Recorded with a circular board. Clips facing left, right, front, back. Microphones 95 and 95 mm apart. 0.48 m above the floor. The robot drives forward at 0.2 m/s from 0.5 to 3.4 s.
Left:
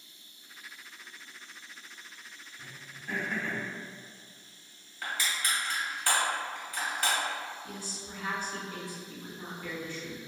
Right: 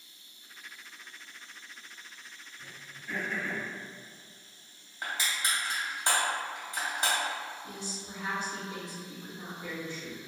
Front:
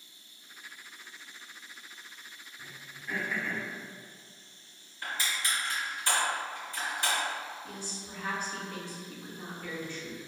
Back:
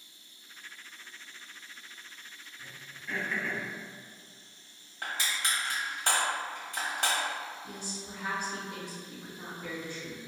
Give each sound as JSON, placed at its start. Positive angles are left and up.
{"t": 2.6, "sound": "throat clearing", "azimuth_deg": 65, "distance_m": 0.5}
{"t": 5.0, "sound": "crushing", "azimuth_deg": -155, "distance_m": 1.0}
{"t": 7.6, "sound": "a woman speaking", "azimuth_deg": -125, "distance_m": 0.7}